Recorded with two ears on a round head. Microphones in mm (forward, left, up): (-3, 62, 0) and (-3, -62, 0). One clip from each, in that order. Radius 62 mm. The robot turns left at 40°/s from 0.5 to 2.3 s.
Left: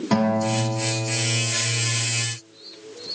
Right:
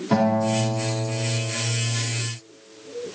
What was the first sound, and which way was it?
A guitar, 140° left.